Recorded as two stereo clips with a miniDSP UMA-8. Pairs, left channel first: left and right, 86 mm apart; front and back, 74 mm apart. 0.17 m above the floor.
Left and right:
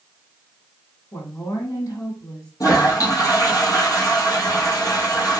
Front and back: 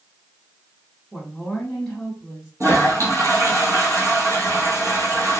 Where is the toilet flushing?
135° left, 1.1 m.